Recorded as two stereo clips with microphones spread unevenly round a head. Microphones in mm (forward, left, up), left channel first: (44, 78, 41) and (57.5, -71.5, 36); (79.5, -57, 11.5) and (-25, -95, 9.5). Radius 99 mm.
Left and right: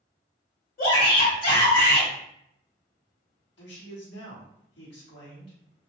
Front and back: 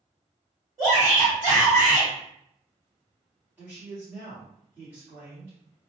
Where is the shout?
135° left, 1.4 m.